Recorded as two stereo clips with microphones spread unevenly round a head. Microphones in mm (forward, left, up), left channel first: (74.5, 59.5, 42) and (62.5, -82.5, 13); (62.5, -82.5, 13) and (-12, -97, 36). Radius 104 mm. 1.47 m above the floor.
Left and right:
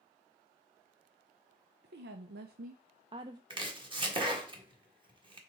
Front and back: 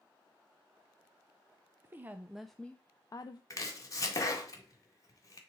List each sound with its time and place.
1.8 s a woman speaking: 115° right, 0.7 m; by 3.4 s 25° right, 0.6 m
3.5 s chopping: 40° right, 1.8 m